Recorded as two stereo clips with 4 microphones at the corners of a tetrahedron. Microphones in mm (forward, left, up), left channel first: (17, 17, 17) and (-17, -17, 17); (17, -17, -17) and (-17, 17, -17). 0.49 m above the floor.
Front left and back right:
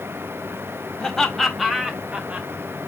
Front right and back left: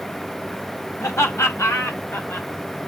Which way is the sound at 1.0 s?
30° right.